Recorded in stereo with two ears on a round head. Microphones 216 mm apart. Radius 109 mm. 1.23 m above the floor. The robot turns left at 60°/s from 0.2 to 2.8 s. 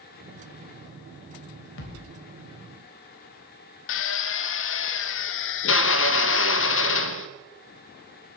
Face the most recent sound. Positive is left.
turn(degrees=55)  # may be behind; listen again after turning